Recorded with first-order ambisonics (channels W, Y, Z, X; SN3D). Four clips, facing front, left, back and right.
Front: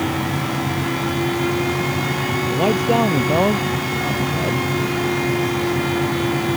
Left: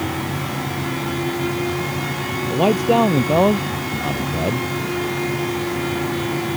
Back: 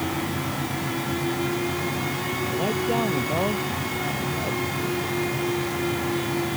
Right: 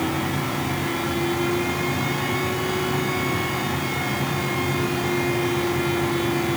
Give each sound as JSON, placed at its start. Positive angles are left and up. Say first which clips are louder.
{"t": 2.5, "sound": "a man speaking", "louder": "left 8 dB, front 8 dB", "azimuth_deg": 60}